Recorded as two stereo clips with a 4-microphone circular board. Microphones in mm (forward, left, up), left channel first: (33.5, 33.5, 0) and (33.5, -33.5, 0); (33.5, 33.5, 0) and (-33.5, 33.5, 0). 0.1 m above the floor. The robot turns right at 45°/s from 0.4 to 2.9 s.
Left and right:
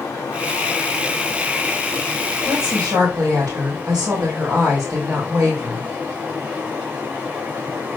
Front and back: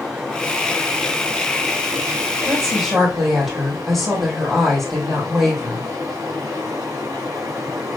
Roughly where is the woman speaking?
Behind right.